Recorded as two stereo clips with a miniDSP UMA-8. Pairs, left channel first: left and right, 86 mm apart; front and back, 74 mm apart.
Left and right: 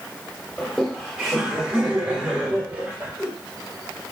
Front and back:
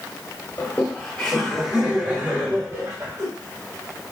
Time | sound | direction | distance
0.6 | laughter | 5° left | 1.0 m